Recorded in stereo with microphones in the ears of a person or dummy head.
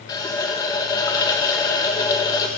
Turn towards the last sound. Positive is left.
turn(degrees=20)  # may be behind; listen again after turning